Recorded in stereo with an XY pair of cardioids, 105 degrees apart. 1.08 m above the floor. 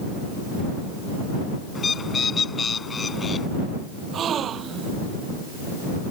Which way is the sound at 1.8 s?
40° left.